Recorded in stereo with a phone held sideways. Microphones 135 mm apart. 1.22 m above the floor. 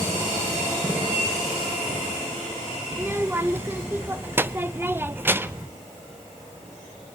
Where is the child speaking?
15° right (ahead or behind), 0.6 m.